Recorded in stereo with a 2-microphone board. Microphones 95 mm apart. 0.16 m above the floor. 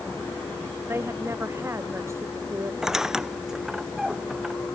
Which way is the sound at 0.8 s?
25° right (ahead or behind).